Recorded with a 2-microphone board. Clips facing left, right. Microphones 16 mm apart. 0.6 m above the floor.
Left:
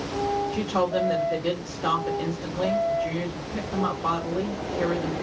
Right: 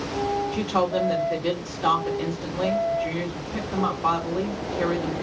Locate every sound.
0.5 s a woman speaking: 50° right (ahead or behind), 1.9 m